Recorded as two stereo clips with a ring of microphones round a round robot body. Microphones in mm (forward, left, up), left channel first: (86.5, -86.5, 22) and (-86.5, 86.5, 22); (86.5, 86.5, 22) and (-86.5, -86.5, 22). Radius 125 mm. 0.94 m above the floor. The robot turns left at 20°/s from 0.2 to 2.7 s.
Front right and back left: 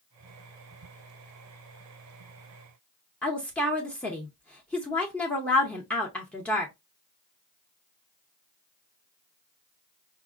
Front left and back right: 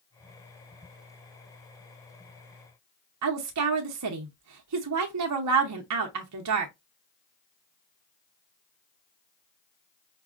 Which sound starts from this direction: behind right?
A woman speaking, at 3.2 s.